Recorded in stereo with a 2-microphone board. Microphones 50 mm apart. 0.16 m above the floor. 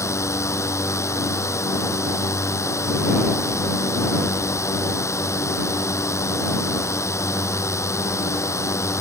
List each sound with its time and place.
0.0 s a drone: 75° left (ahead or behind)